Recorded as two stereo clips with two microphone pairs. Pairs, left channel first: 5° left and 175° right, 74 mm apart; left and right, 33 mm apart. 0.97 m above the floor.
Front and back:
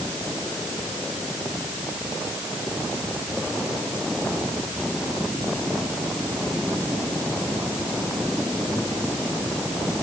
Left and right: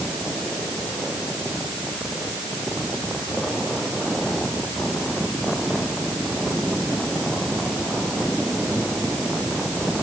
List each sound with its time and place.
Only background noise.